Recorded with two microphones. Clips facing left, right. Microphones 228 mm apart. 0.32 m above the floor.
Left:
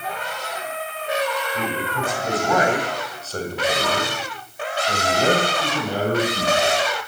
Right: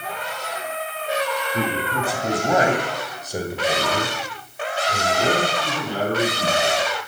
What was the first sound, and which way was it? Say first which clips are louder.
A man speaking: right 2 dB; 40° right (ahead or behind).